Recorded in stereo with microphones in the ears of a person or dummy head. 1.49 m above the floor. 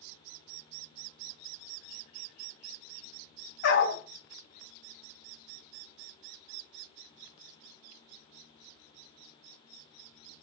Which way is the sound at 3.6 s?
75° left (ahead or behind).